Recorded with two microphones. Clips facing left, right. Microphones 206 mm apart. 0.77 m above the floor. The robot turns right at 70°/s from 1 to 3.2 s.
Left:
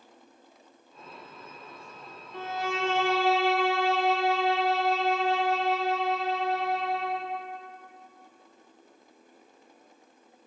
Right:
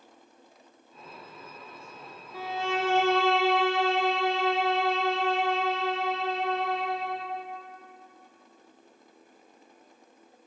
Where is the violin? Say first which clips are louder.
Right 1 dB; 175° right, 1.5 m; by 7.3 s 115° right, 1.5 m.